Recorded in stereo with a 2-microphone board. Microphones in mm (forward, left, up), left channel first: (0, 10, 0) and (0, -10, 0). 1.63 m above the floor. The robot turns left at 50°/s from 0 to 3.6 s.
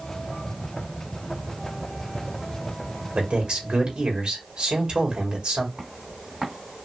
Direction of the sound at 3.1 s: 75° right (ahead or behind).